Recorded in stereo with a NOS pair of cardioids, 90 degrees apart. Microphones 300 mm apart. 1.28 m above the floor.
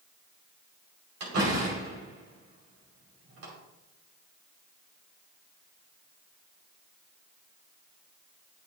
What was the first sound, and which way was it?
A door slam, 55° right.